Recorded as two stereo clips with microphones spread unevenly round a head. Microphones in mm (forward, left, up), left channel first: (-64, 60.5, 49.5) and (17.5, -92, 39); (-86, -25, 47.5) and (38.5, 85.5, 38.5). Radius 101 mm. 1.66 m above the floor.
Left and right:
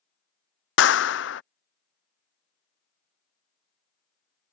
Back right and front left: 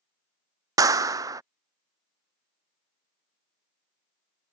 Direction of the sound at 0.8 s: 110° left.